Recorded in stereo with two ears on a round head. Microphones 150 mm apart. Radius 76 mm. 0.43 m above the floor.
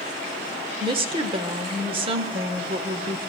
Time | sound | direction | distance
0.8 | a woman speaking | 30° right (ahead or behind) | 1.3 m